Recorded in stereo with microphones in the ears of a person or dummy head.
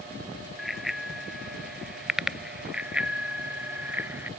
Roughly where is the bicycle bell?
Centre.